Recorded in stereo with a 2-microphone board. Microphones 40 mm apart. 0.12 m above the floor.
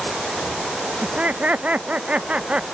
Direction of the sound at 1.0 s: 40° right (ahead or behind).